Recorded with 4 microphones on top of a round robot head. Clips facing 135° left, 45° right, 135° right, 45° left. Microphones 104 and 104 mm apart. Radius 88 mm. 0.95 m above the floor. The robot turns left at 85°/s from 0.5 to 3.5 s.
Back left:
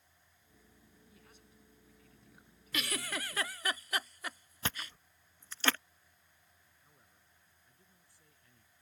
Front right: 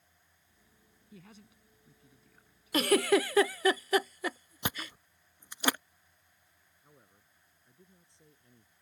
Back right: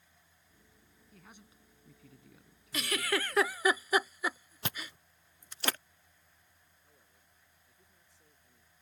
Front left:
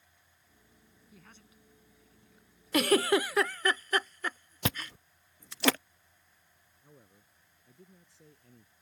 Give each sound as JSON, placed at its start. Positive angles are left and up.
{"t": 1.1, "sound": "a man speaking", "azimuth_deg": -40}
{"t": 2.7, "sound": "a giggle", "azimuth_deg": 10}
{"t": 4.7, "sound": "chewing", "azimuth_deg": 30}
{"t": 6.8, "sound": "a man speaking", "azimuth_deg": 25}